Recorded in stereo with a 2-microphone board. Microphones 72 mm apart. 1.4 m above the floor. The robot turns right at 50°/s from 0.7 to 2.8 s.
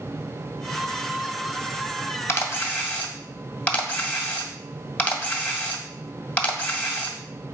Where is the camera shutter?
35° left (ahead or behind), 1.7 m; by 7.2 s 15° left (ahead or behind), 1.7 m.